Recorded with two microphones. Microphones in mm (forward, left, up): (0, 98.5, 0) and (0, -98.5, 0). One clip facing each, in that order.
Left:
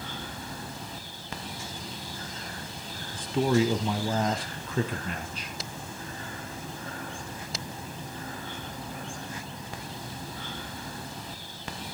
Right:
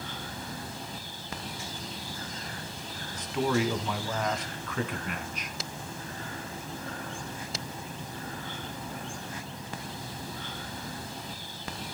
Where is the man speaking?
35° left (ahead or behind), 1.2 m.